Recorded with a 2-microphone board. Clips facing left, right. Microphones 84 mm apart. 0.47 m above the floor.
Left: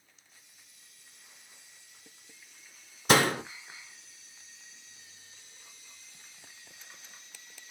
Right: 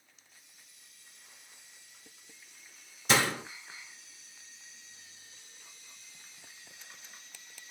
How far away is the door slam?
About 0.7 m.